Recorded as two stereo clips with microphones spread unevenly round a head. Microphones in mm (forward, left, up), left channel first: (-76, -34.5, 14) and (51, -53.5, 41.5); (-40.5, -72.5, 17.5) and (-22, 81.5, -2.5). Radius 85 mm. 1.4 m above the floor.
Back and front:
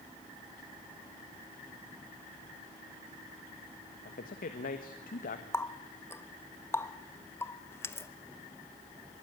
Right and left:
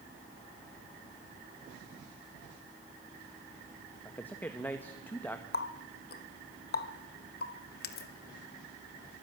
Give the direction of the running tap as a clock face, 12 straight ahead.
4 o'clock.